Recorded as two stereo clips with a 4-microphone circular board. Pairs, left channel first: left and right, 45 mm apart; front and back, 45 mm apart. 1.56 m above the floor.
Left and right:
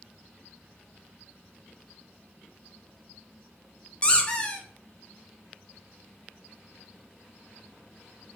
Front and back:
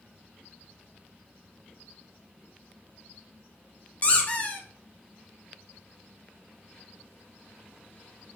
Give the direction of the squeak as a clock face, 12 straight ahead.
11 o'clock.